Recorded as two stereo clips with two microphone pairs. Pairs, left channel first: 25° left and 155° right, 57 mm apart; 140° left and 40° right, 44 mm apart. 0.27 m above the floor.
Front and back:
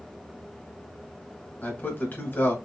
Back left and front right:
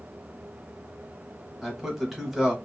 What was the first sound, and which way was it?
A man speaking, 40° left.